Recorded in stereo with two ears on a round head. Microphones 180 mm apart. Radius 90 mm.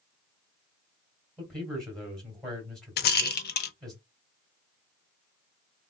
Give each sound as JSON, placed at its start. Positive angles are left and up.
{"t": 1.4, "sound": "a man speaking", "side_deg": 0, "distance_m": 2.0}
{"t": 3.0, "sound": "a rattle", "side_deg": 50, "distance_m": 0.5}